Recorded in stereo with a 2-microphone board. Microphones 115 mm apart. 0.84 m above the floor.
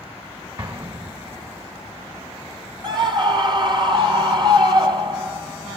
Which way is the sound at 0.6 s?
45° right (ahead or behind).